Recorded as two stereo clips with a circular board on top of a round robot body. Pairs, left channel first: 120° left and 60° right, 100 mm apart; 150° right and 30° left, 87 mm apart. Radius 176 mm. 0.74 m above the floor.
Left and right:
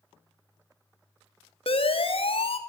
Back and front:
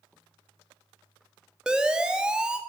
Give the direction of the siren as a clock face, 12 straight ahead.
8 o'clock.